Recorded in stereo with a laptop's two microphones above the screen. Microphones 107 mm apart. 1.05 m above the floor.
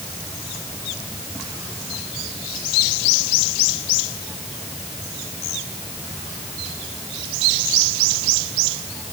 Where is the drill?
I don't hear a drill.